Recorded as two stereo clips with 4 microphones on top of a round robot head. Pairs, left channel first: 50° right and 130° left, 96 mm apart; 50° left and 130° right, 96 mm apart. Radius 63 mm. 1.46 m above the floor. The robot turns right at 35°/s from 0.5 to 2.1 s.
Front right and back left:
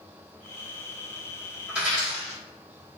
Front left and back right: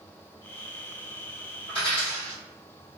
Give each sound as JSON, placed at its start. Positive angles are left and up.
{"t": 1.7, "sound": "a dropped coin", "azimuth_deg": 60, "distance_m": 1.3}